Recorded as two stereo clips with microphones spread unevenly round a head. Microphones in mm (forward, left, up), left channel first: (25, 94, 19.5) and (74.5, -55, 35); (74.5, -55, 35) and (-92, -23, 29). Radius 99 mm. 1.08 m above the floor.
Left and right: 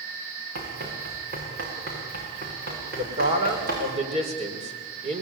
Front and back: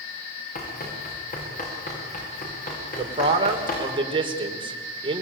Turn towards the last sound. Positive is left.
turn(degrees=-130)